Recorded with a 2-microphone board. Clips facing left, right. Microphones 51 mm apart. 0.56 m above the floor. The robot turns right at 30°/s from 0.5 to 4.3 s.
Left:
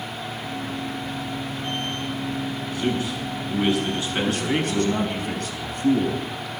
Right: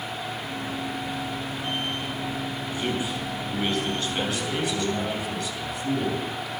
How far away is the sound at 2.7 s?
About 6 m.